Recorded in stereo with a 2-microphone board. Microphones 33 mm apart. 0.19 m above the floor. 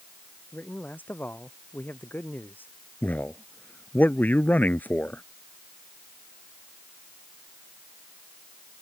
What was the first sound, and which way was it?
A man speaking, 65° left (ahead or behind).